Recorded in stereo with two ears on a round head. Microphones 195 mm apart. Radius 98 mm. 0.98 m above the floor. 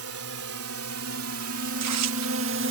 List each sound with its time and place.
0.0 s a drone: 75° right (ahead or behind); by 2.7 s 60° right (ahead or behind)
1.7 s tearing paper: 85° right